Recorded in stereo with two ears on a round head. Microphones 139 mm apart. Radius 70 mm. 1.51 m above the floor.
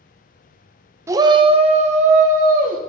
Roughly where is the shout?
Centre.